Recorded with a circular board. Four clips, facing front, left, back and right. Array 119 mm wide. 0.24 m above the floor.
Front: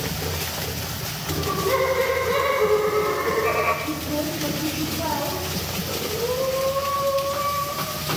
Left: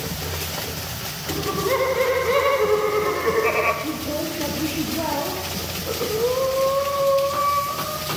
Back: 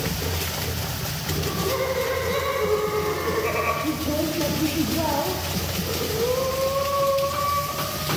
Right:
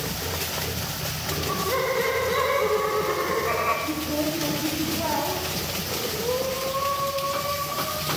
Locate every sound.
1.3 s laughter: 70° left, 6.5 m; by 3.7 s 85° left, 6 m
3.8 s a woman speaking: 145° left, 5 m
5.9 s breathing: 105° left, 6.5 m